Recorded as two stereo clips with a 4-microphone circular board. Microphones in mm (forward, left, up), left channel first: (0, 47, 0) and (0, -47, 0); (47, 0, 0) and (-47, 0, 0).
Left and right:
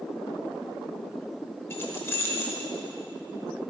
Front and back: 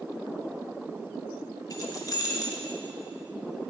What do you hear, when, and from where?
1.7 s keys jangling: 35° left, 1.3 m